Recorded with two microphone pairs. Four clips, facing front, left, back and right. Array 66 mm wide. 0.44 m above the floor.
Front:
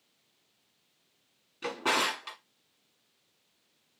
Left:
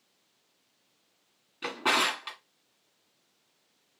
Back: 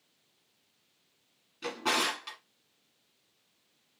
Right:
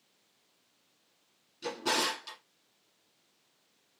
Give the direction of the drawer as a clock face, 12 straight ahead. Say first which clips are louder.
Left 4 dB, front 2 dB; 9 o'clock.